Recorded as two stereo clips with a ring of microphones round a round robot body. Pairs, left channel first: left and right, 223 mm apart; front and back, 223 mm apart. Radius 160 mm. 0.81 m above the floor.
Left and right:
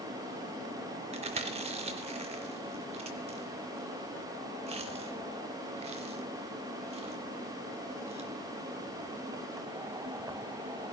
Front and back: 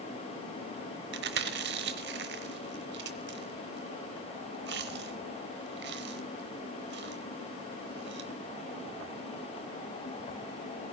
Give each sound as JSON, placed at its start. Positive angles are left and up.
{"t": 1.1, "sound": "chewing", "azimuth_deg": -150, "distance_m": 0.7}